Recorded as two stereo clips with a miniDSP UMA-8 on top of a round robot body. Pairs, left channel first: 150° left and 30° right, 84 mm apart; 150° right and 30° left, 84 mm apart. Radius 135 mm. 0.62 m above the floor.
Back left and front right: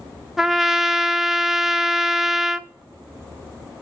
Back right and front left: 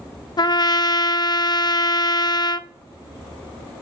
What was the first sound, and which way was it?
A trumpet, 115° right.